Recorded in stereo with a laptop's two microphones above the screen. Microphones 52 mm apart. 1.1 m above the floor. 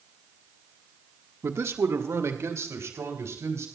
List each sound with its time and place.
1.4 s a man speaking: 65° right (ahead or behind), 1.4 m; by 3.7 s 70° right (ahead or behind), 4.5 m